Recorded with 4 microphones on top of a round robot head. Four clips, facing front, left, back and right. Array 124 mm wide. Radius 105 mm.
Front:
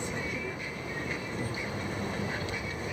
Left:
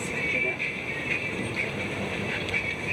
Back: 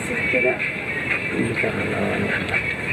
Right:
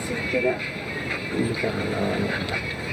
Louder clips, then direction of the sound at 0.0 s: Right 7 dB, back 13 dB; 150° right.